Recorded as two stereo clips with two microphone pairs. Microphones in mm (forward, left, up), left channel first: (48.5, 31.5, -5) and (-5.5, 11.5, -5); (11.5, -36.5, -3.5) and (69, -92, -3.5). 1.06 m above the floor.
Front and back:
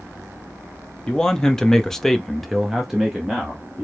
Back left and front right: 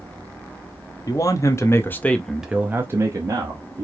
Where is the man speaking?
95° left, 1.0 m; by 3.8 s 80° right, 1.3 m.